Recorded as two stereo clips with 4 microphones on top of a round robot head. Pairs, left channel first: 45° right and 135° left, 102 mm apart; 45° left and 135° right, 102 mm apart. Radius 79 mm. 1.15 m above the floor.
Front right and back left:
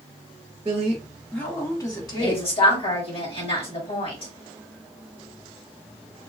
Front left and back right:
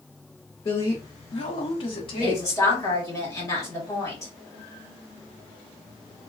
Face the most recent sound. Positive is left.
turn(degrees=-15)